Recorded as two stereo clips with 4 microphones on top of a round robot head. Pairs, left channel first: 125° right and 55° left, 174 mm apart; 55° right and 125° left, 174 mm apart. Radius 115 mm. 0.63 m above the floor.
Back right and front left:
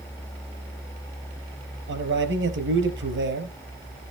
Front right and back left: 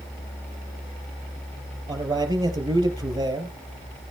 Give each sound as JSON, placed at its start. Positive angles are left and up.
{"t": 1.9, "sound": "a man speaking", "azimuth_deg": 55, "distance_m": 4.0}